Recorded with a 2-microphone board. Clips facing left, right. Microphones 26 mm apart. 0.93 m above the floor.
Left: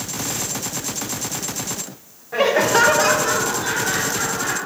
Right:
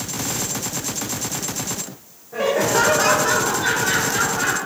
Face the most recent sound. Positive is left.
turn(degrees=-45)  # may be behind; listen again after turning